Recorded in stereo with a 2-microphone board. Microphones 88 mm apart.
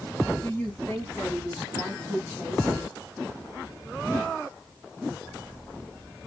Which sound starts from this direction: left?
A woman speaking, at 0.4 s.